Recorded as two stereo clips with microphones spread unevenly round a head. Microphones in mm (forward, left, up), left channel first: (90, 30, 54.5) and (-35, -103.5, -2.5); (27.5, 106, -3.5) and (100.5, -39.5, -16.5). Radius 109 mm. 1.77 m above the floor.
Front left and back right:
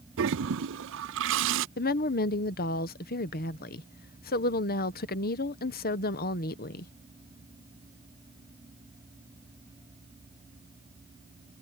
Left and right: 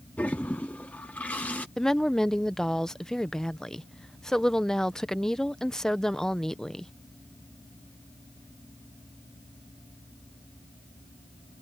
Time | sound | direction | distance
0.2 | a toilet flushing | 160° right | ?
1.8 | a woman speaking | 30° left | ?